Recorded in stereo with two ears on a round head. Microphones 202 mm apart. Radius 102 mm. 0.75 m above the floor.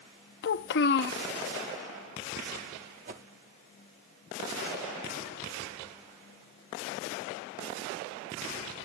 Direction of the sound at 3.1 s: 35° right (ahead or behind).